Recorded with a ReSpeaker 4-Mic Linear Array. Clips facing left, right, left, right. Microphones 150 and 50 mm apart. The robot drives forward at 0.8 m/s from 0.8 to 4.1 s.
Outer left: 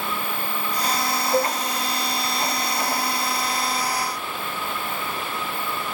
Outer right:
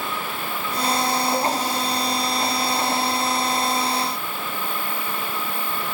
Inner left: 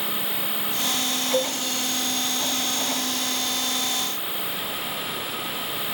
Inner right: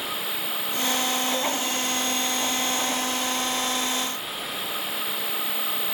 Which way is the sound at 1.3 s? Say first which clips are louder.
Outer left 6 dB, inner left 2 dB; 25° left (ahead or behind).